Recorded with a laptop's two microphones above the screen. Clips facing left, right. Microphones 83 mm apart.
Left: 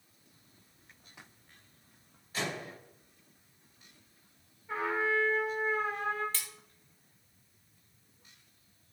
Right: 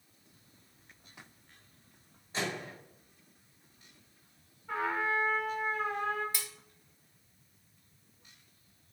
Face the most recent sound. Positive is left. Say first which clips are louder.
# right 1 dB
turn(degrees=-10)  # may be behind; listen again after turning